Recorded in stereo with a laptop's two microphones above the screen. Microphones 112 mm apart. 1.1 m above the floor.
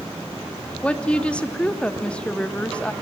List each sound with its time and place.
0.8 s a woman speaking: 10° left (ahead or behind), 0.8 m